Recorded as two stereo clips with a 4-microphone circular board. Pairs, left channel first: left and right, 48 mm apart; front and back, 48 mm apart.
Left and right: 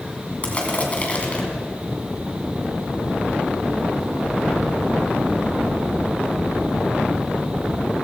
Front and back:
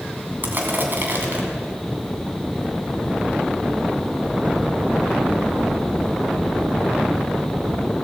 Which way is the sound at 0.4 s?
145° left.